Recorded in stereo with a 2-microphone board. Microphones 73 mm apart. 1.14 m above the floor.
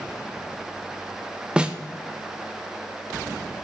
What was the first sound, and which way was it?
A snare drum, 15° right (ahead or behind).